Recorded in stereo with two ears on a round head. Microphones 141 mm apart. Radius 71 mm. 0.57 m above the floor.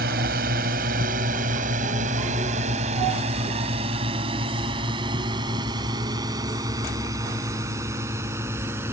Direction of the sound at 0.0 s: 65° right (ahead or behind).